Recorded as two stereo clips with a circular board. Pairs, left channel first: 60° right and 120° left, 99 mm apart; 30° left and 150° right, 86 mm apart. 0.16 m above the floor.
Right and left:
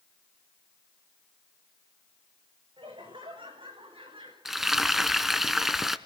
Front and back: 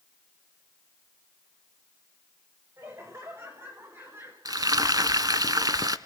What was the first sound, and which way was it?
Laughter, 155° left.